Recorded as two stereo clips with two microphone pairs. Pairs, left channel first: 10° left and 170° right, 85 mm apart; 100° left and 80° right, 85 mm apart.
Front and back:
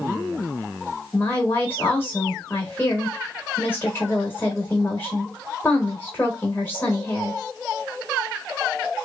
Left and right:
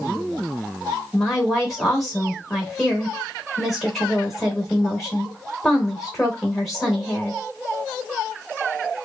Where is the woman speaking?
20° left, 0.9 m.